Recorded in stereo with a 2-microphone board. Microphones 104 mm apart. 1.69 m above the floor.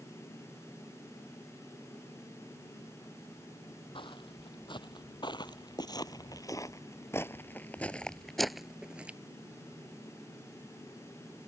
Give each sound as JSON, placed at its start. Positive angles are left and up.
{"t": 4.0, "sound": "footsteps", "side_deg": 55}